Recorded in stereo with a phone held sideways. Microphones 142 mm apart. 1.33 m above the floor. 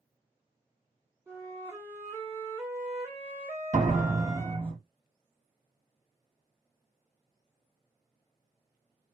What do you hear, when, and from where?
1.3 s a flute: 15° right (ahead or behind), 1.5 m
3.7 s a door slam: 60° right (ahead or behind), 2 m